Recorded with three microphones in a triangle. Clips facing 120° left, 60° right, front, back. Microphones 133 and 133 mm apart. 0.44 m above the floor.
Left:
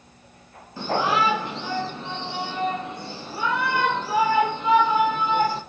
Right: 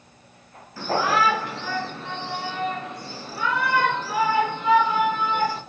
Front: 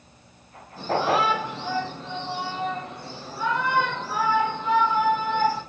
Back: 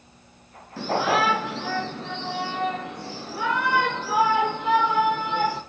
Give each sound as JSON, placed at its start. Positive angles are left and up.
{"t": 0.8, "sound": "a shout", "azimuth_deg": -170, "distance_m": 5.0}